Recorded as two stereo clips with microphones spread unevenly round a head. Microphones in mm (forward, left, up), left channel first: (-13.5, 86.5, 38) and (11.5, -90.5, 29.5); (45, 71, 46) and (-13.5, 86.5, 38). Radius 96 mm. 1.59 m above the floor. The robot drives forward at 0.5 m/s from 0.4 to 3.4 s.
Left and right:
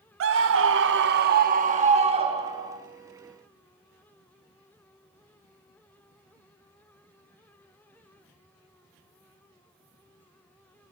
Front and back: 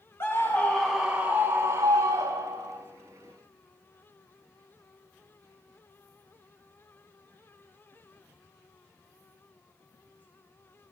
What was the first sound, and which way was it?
A scream, 85° right.